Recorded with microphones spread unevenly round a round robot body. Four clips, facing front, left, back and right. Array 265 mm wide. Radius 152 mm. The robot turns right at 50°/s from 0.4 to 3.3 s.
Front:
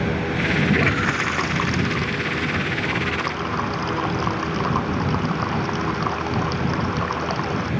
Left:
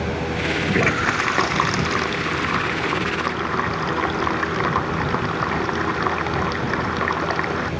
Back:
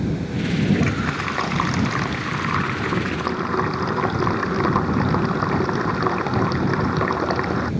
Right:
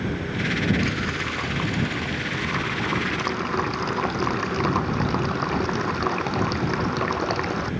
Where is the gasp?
No gasp in this recording.